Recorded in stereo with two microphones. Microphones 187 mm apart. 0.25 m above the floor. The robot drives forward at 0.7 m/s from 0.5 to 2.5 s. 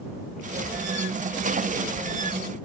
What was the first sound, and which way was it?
Only background noise.